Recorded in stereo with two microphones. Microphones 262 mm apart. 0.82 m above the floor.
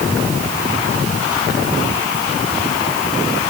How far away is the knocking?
No knocking in this recording.